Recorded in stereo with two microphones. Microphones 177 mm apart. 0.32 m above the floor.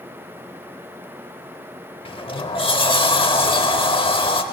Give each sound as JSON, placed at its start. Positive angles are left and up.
{"t": 2.0, "sound": "a sliding door", "side_deg": 30, "distance_m": 0.8}